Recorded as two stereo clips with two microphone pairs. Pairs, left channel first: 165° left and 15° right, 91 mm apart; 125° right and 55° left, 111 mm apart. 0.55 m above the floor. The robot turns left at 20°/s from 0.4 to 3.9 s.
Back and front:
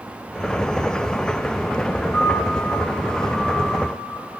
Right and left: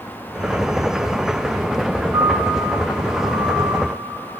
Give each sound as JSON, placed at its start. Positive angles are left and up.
{"t": 2.1, "sound": "a piano", "azimuth_deg": 125, "distance_m": 4.0}